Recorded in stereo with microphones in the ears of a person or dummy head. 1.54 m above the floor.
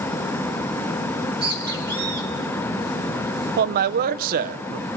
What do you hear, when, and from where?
1.1 s a bird: 25° right (ahead or behind), 2 m
3.6 s a man speaking: 50° right (ahead or behind), 0.7 m